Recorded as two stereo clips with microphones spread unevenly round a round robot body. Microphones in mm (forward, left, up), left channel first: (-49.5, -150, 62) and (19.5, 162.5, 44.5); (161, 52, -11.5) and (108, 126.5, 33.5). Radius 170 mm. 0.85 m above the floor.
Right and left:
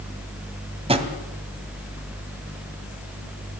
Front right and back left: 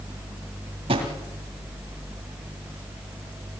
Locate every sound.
0.9 s a drawer: 150° left, 2 m